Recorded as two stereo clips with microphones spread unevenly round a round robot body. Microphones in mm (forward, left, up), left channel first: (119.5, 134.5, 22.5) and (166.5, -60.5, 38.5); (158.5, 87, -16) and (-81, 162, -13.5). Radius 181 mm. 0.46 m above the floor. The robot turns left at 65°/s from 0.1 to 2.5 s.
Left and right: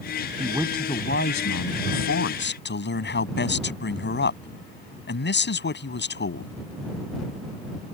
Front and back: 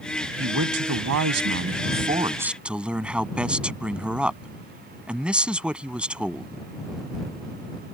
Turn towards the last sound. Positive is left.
turn(degrees=75)